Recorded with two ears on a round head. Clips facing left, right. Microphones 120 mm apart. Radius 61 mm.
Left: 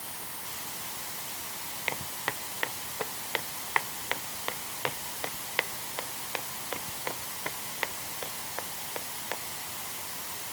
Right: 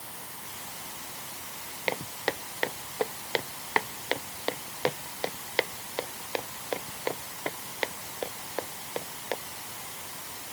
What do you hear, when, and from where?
1.9 s footsteps: 45° right (ahead or behind); by 9.3 s 35° right (ahead or behind)